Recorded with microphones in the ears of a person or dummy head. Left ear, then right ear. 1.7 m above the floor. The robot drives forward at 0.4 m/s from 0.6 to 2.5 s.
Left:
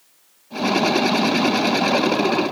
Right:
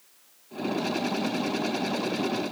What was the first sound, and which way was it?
Only background noise.